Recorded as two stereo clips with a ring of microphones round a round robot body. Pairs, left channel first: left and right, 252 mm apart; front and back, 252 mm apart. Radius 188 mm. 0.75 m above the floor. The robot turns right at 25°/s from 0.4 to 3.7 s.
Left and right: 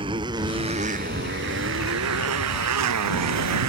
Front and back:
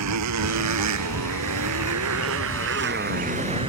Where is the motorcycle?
165° right; by 3.7 s 105° right.